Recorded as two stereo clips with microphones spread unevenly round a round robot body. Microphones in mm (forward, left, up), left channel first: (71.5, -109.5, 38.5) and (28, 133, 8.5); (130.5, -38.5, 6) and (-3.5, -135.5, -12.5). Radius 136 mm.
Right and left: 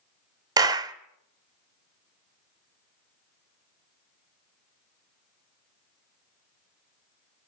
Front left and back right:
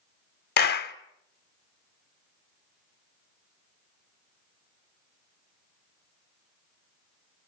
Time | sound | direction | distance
0.6 | a clap | 30° left | 1.2 m